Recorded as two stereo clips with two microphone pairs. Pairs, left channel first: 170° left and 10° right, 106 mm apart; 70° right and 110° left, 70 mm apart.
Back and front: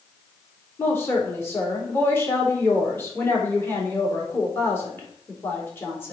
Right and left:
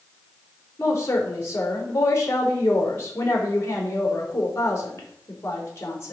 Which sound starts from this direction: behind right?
A woman speaking, at 0.8 s.